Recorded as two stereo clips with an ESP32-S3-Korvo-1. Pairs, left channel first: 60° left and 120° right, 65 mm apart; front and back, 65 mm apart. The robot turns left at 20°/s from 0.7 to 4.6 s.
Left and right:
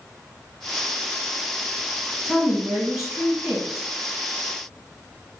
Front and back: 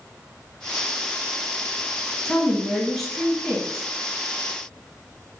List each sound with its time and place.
2.2 s a woman speaking: 50° right, 1.5 m; by 3.9 s 85° right, 1.5 m